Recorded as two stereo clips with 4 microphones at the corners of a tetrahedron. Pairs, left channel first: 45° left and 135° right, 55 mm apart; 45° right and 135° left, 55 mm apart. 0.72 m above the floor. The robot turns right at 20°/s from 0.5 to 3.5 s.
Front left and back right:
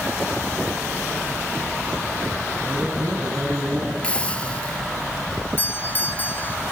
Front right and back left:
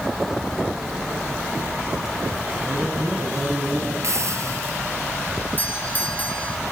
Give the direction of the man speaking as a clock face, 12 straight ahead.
6 o'clock.